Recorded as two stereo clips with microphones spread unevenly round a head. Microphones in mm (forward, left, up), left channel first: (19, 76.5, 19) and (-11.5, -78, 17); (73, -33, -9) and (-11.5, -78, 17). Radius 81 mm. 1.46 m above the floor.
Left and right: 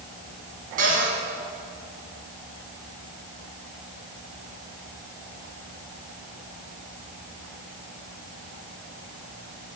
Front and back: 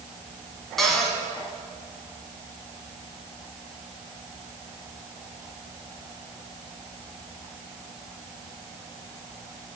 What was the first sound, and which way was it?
A cupboard door, 60° right.